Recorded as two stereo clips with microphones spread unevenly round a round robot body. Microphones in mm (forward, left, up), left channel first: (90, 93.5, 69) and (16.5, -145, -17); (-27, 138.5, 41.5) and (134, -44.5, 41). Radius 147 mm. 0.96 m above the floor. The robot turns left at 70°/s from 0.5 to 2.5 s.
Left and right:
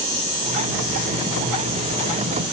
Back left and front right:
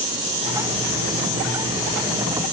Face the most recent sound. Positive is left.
No sound to turn to.